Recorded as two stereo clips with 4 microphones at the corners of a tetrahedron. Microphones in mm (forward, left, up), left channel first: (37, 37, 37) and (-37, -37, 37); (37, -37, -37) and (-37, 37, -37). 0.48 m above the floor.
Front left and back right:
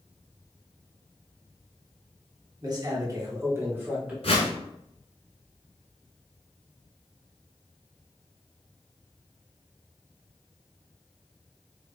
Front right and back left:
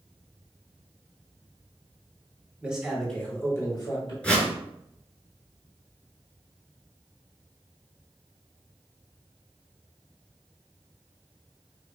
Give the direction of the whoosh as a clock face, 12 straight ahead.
11 o'clock.